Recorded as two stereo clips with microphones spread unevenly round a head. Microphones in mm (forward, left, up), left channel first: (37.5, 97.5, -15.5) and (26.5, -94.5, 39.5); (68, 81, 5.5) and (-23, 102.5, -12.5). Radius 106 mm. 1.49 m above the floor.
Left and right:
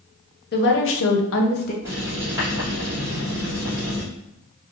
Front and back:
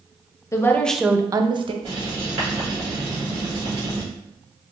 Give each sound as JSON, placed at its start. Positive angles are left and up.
{"t": 0.5, "sound": "a woman speaking", "azimuth_deg": 50, "distance_m": 0.8}
{"t": 1.8, "sound": "writing", "azimuth_deg": -165, "distance_m": 1.5}